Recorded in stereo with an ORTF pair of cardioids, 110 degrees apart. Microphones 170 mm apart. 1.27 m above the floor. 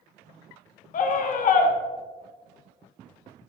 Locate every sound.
0.9 s a scream: 50° left, 1.9 m